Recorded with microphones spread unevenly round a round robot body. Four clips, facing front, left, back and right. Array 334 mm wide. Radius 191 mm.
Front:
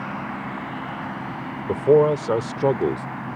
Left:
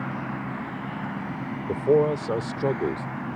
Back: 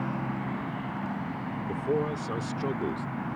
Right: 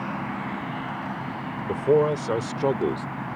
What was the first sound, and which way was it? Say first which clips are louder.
A man speaking: even, front 14 dB; 10° right.